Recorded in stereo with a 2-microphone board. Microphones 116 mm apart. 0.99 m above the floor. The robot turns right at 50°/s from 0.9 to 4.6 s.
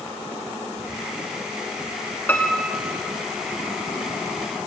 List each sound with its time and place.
2.3 s a piano: 165° left, 2 m; by 3.0 s 160° right, 2 m